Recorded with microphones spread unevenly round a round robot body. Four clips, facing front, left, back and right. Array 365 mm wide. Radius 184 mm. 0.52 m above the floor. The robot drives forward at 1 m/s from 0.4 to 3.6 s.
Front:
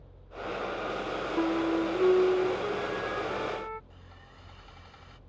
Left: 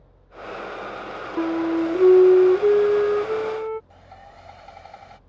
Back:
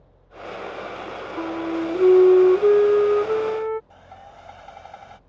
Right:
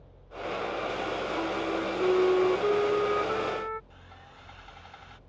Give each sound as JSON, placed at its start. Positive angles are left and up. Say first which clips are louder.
{"t": 1.4, "sound": "a flute", "louder": "left 12 dB, back 2 dB", "azimuth_deg": 65}
{"t": 3.9, "sound": "sawing", "louder": "left 7 dB, back 11 dB", "azimuth_deg": 150}